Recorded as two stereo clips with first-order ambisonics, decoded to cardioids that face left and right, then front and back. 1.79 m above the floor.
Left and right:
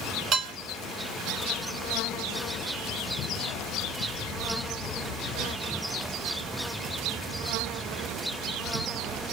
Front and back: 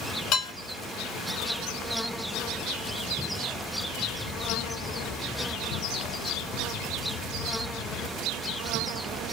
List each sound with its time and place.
0.3 s dishes clattering: 45° right, 1.6 m